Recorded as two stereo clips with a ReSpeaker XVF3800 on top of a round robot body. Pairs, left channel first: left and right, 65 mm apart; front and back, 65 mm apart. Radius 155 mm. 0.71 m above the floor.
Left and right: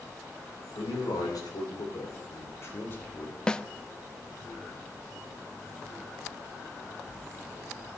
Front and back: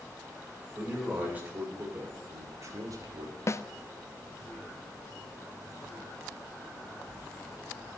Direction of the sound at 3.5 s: 15° left.